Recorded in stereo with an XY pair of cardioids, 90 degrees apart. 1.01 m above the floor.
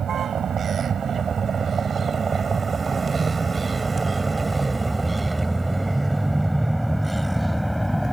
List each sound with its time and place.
0.0 s a vehicle: 60° right; by 8.1 s 5° right